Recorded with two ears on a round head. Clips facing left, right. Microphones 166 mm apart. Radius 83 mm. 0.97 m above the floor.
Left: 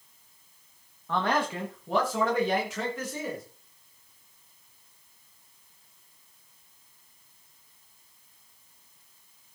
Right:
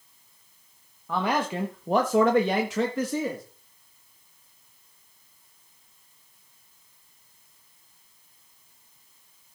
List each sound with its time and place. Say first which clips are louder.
1.1 s a man speaking: right 1 dB; 5° right (ahead or behind), 1.3 m; by 3.4 s 65° right (ahead or behind), 2.0 m